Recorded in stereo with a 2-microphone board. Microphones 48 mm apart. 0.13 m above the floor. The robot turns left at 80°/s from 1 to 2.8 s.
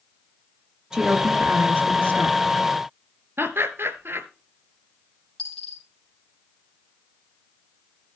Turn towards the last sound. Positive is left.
turn(degrees=15)  # may be behind; listen again after turning